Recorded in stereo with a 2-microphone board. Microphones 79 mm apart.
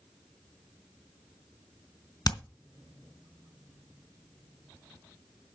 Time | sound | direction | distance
2.2 | hammering | 60° left (ahead or behind) | 1.8 m